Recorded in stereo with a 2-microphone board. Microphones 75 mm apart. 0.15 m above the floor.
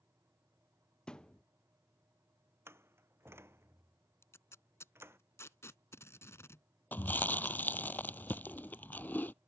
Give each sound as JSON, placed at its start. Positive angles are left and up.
{"t": 1.1, "sound": "a thud", "side_deg": 10}
{"t": 2.7, "sound": "a door slam", "side_deg": -30}
{"t": 4.2, "sound": "tape being pulled", "side_deg": 40}
{"t": 6.9, "sound": "chewing", "side_deg": 25}